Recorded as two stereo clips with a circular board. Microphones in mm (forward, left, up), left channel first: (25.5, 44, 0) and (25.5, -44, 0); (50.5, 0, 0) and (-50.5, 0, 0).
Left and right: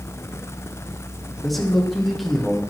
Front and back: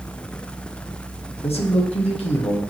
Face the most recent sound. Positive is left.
turn(degrees=0)